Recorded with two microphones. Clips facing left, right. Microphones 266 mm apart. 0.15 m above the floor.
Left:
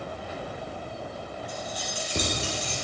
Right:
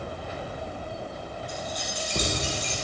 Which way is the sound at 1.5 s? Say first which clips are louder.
Right 1 dB; 10° left (ahead or behind).